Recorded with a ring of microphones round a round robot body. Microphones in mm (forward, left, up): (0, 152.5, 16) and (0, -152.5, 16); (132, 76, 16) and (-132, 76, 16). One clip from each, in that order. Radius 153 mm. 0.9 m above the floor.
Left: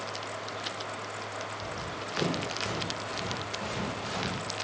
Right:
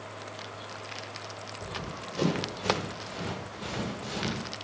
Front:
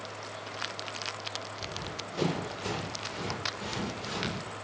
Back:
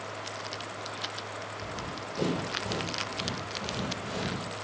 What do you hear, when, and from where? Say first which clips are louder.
1.6 s running footsteps: left 2 dB, back 1 dB; 5° right, 9 m; by 4.5 s 10° left, 9 m